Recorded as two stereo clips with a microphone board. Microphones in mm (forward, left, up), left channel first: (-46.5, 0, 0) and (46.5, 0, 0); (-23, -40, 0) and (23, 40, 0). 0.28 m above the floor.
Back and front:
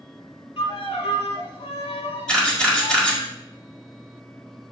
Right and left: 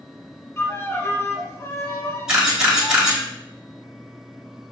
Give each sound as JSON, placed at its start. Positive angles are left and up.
{"t": 0.6, "sound": "a violin", "azimuth_deg": 180, "distance_m": 0.6}
{"t": 2.3, "sound": "a camera shutter", "azimuth_deg": 120, "distance_m": 1.6}